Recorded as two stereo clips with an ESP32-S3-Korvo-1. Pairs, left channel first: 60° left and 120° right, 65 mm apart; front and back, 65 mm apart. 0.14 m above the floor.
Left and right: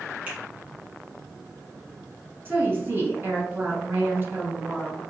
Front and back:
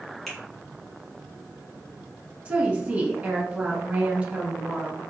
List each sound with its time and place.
0.3 s a finger snap: 80° right, 1.2 m
2.5 s a woman speaking: 130° right, 1.2 m